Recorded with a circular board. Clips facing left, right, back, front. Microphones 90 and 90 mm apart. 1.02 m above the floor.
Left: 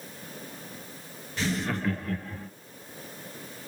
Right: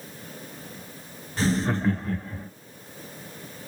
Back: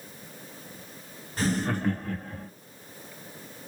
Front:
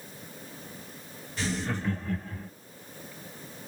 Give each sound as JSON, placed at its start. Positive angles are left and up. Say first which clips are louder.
{"t": 1.4, "sound": "laughter", "louder": "right 5 dB, back 5 dB", "azimuth_deg": -140, "distance_m": 0.6}